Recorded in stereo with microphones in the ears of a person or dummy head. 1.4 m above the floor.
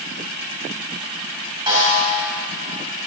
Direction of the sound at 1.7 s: 25° right (ahead or behind).